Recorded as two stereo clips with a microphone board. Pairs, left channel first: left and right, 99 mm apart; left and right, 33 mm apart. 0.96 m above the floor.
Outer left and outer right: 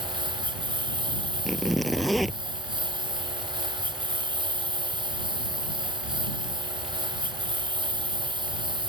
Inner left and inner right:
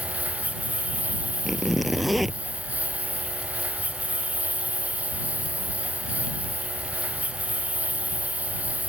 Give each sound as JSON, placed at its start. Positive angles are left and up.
{"t": 0.0, "sound": "a lawn mower", "side_deg": -50}
{"t": 1.4, "sound": "a zipper", "side_deg": 0}